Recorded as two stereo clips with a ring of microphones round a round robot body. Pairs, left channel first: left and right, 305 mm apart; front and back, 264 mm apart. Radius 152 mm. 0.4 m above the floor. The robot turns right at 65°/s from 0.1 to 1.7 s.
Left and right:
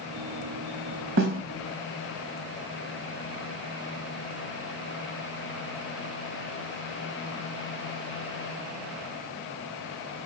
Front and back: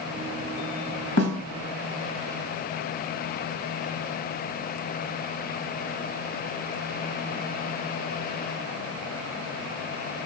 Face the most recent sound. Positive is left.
turn(degrees=-10)